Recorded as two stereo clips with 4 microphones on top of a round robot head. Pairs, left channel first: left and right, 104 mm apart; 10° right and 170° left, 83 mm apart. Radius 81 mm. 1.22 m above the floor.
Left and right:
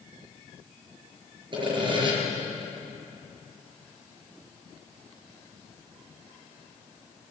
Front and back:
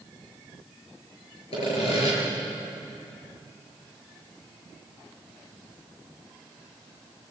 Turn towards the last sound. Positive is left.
turn(degrees=-40)